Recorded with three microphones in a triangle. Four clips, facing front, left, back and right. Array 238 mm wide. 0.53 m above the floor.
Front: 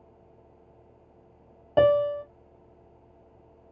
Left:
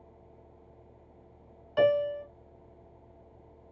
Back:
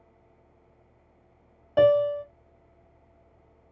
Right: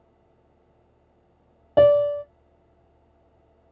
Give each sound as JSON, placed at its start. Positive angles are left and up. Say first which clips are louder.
{"t": 1.8, "sound": "a piano", "louder": "right 9 dB, back 1 dB", "azimuth_deg": -60, "distance_m": 0.6}